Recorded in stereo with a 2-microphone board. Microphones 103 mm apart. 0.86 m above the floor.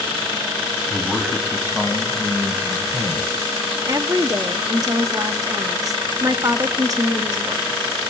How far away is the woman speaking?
About 1.4 m.